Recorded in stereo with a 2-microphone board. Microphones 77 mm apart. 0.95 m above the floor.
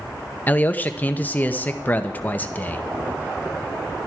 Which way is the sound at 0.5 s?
20° left (ahead or behind).